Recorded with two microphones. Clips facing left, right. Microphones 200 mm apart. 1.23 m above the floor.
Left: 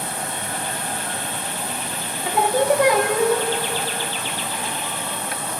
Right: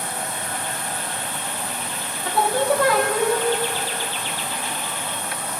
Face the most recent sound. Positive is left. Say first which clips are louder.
# left 2 dB
turn(degrees=15)  # may be behind; listen again after turning